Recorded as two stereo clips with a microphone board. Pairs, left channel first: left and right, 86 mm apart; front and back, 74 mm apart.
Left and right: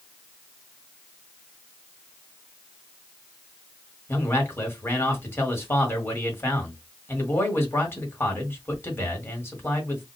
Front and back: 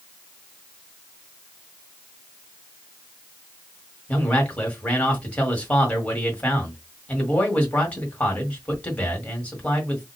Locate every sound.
4.1 s a man speaking: 55° left, 1.4 m